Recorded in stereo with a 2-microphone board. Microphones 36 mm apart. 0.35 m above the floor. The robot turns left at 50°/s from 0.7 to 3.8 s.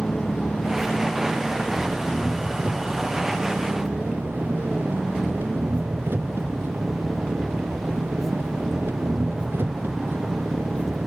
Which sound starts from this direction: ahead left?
An engine running, at 0.0 s.